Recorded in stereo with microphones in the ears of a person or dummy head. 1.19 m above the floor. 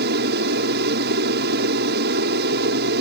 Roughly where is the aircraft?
Right.